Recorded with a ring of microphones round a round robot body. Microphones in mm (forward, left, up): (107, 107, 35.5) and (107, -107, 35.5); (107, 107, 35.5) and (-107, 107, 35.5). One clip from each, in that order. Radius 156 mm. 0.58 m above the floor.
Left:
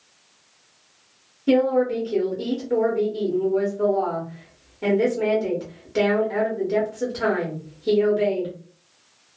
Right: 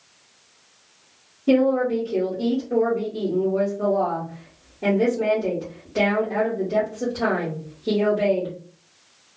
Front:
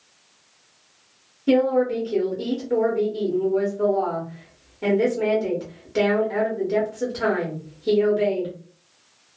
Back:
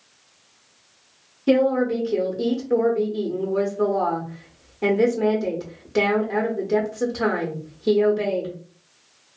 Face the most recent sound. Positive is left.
turn(degrees=135)